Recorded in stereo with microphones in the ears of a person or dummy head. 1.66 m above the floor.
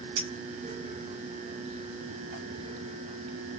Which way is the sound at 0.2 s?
60° right (ahead or behind).